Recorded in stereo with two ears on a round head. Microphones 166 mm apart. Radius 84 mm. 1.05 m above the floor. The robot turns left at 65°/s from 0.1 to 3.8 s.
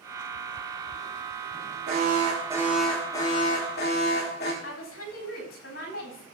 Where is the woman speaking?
80° left, 3.5 m.